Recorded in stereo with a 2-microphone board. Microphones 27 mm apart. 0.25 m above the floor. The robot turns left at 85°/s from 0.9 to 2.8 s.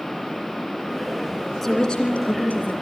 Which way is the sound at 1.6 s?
175° left.